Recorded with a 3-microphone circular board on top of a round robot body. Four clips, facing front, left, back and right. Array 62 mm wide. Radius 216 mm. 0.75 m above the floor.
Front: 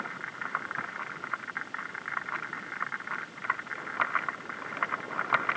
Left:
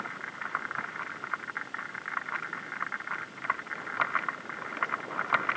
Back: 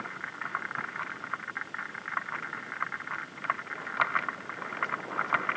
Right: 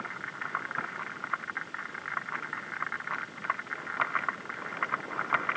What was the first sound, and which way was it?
Only background noise.